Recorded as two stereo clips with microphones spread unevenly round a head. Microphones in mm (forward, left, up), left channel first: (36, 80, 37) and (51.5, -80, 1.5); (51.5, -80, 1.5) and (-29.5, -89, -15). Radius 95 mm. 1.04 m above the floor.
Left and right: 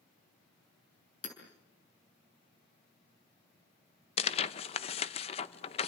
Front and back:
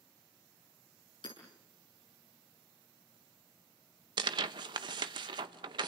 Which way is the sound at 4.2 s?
160° left.